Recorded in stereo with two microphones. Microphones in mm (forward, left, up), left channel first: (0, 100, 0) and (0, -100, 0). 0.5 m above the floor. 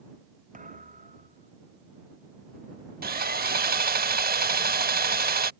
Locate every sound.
0.5 s a thud: 40° right (ahead or behind)
3.0 s sawing: 50° right (ahead or behind)